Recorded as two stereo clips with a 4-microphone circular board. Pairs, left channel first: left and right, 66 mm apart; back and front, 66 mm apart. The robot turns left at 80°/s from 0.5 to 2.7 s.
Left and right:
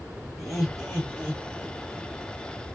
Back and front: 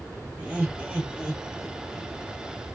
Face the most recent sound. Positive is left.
turn(degrees=-170)